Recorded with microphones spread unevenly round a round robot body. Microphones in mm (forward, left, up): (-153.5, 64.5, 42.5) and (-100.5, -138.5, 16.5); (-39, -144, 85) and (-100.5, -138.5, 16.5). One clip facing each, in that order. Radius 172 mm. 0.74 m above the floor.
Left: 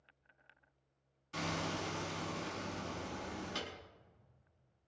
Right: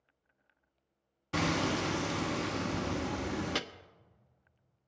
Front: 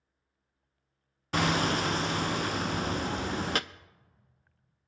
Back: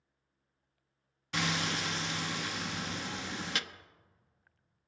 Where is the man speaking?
I don't hear a man speaking.